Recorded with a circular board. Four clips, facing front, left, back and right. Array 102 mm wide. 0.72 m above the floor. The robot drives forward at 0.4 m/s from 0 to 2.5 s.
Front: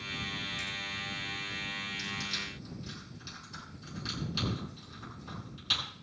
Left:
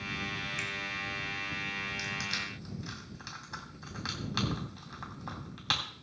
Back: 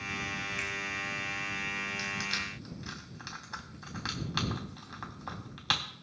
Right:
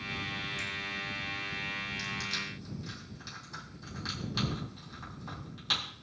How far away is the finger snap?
About 3.5 m.